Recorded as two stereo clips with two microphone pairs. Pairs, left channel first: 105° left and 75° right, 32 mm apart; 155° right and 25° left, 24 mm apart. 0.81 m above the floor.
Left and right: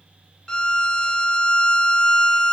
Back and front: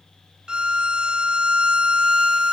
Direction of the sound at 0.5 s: 45° left.